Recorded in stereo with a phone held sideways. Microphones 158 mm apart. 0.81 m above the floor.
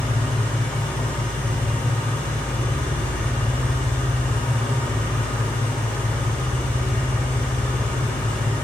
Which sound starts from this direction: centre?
An engine running, at 0.0 s.